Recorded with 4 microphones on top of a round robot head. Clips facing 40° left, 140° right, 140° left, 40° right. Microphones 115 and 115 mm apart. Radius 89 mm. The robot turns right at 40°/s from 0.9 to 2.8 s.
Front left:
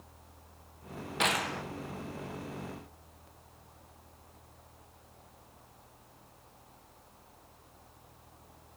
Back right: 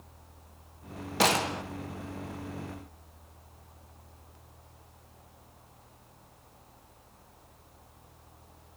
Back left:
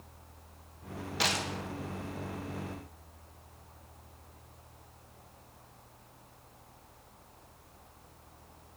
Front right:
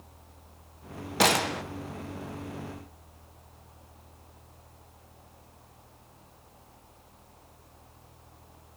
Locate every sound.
1.2 s a gunshot: 85° right, 1.0 m; by 1.6 s 65° right, 1.0 m